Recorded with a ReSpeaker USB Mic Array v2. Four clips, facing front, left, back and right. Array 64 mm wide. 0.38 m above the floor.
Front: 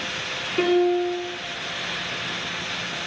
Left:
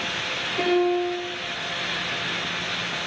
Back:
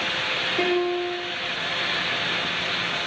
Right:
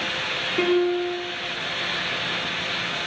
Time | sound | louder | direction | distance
0.6 | a piano | even, front 5 dB | 35° right | 4.5 m